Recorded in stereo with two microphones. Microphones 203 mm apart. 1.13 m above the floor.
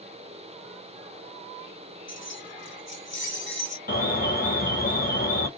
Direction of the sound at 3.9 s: 50° left (ahead or behind).